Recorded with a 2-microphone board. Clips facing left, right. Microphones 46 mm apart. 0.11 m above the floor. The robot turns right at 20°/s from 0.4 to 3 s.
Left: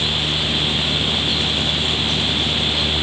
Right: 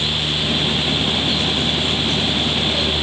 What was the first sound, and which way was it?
Only background noise.